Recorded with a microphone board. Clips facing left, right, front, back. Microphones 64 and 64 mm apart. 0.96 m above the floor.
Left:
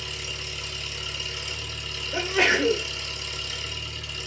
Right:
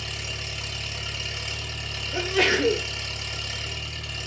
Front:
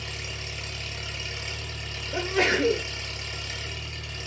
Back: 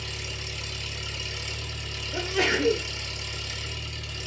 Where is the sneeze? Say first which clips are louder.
Even, front 2 dB; 10° left, 1.4 m.